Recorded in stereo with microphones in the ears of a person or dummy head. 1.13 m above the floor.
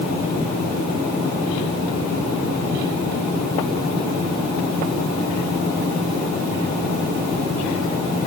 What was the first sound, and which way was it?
Only background noise.